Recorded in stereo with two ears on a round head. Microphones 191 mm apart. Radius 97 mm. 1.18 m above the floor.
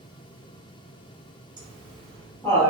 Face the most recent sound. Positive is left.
turn(degrees=20)  # may be behind; listen again after turning